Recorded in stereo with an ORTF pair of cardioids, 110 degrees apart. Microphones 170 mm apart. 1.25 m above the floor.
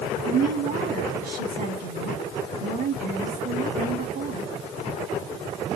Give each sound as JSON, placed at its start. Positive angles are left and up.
{"t": 0.2, "sound": "a woman speaking", "azimuth_deg": -65, "distance_m": 2.5}